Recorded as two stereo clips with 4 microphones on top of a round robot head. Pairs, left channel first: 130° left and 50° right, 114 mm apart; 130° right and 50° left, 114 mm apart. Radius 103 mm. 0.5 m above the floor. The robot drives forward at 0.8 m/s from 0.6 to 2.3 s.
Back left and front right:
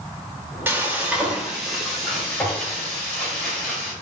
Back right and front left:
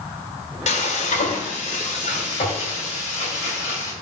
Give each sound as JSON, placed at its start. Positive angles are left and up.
{"t": 0.7, "sound": "frying", "azimuth_deg": -120, "distance_m": 1.9}